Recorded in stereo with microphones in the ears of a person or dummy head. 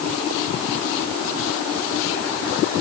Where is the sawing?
No sawing in this recording.